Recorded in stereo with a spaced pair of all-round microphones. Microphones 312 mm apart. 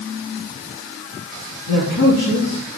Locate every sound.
1.7 s a man speaking: 60° left (ahead or behind), 3.5 m